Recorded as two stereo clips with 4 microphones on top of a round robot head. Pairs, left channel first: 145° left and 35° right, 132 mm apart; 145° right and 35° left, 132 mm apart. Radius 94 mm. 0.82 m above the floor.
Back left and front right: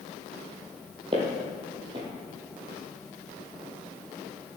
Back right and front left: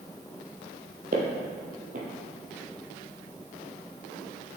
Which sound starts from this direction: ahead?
Footsteps, at 1.1 s.